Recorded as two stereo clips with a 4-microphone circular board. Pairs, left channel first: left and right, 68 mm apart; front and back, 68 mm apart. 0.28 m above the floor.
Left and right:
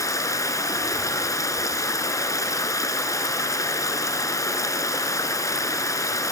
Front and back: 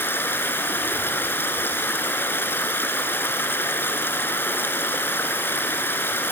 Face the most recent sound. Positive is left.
turn(degrees=60)